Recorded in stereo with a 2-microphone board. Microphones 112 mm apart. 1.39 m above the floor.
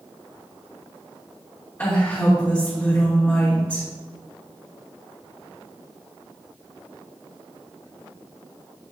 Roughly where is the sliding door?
I don't hear a sliding door.